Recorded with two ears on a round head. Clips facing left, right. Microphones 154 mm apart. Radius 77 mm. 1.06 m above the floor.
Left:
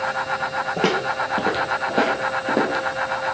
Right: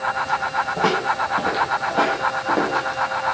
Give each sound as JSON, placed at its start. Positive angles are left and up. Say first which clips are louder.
{"t": 0.8, "sound": "footsteps", "louder": "even", "side_deg": 35, "distance_m": 1.7}